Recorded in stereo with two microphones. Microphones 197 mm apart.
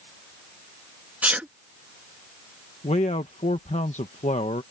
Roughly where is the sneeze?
Centre.